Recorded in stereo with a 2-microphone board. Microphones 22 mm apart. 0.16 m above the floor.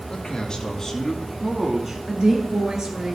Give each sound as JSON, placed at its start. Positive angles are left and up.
{"t": 0.1, "sound": "a man speaking", "side_deg": 45, "distance_m": 1.9}
{"t": 2.1, "sound": "a woman speaking", "side_deg": -35, "distance_m": 3.0}